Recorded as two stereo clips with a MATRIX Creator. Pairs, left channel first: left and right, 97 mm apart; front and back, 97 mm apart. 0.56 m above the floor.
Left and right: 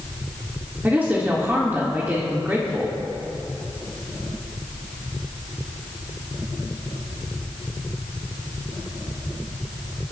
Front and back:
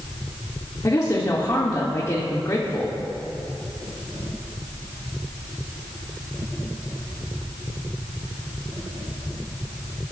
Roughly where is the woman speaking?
Ahead right.